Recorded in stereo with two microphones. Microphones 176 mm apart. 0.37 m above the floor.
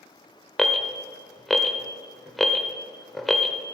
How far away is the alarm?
About 0.7 m.